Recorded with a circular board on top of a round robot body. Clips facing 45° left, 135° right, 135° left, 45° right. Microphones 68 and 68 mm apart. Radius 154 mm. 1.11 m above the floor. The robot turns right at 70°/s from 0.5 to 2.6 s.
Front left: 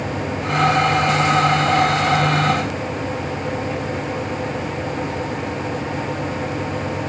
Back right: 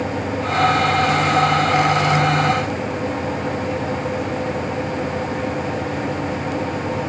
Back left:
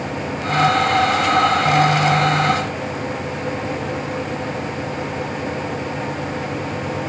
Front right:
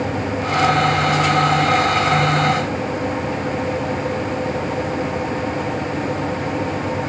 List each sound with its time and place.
Only background noise.